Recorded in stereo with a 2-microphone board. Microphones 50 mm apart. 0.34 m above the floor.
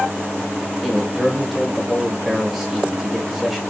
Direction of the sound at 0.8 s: 5° right (ahead or behind).